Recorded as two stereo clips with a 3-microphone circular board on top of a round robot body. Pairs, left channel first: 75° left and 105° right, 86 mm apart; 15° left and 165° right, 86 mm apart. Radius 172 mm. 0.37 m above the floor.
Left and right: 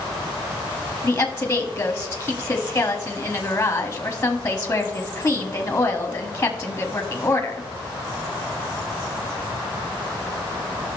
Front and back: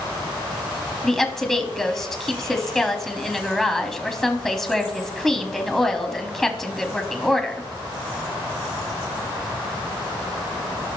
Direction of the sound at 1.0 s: 105° left.